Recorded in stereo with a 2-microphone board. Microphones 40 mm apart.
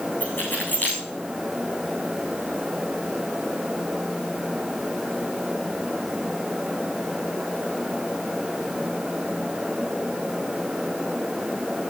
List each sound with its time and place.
0.2 s keys jangling: 50° left (ahead or behind), 8 m